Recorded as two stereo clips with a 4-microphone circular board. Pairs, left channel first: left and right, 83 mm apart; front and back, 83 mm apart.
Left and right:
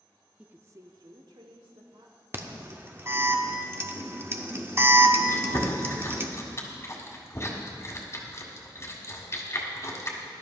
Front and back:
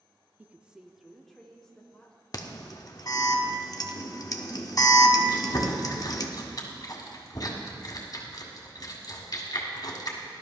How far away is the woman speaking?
About 0.6 m.